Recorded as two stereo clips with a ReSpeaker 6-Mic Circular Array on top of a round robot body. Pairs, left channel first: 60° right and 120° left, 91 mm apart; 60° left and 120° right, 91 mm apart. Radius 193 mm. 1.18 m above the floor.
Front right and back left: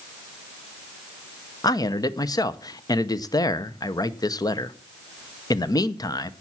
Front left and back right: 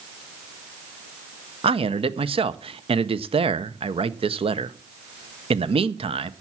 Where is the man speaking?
110° right, 0.9 m.